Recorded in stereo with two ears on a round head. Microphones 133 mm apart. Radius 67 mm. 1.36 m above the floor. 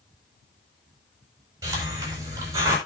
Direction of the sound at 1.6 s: 20° right (ahead or behind).